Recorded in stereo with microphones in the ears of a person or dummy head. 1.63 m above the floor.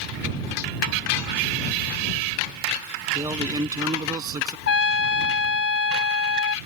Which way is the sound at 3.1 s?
20° right (ahead or behind).